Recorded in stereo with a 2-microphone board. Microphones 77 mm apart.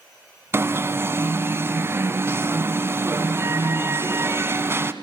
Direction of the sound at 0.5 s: 30° right (ahead or behind).